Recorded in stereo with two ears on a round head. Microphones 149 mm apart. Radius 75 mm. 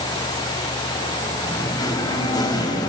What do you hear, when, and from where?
1.4 s singing: 25° left (ahead or behind), 3.5 m